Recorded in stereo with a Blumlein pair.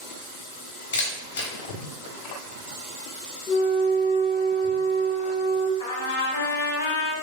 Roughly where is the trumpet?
Ahead left.